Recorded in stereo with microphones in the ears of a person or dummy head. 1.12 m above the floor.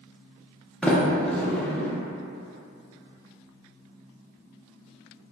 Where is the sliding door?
5° left (ahead or behind), 0.5 m.